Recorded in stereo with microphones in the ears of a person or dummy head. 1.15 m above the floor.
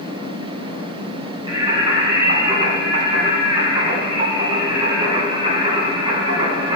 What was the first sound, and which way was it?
Singing, 30° right (ahead or behind).